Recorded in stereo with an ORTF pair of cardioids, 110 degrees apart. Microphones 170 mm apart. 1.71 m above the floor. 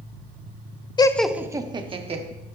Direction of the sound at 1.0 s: 25° left.